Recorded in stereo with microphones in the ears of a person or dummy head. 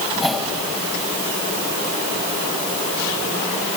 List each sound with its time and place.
0.1 s a whoosh: centre (ahead or behind), 3 m